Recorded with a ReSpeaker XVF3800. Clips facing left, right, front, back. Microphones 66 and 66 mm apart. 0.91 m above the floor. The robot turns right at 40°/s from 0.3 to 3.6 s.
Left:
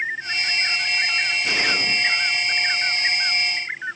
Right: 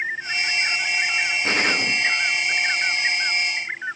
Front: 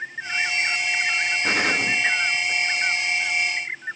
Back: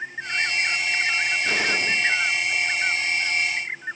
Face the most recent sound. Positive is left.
turn(degrees=50)